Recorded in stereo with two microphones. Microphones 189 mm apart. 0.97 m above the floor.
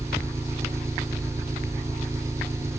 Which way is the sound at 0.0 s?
15° right (ahead or behind).